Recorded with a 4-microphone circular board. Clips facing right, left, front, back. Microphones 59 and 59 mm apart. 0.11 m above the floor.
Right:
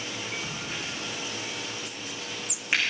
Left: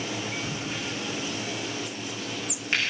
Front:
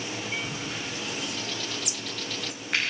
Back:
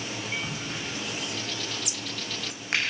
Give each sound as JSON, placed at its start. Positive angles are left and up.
{"t": 0.4, "sound": "a crack", "azimuth_deg": -170, "distance_m": 5.5}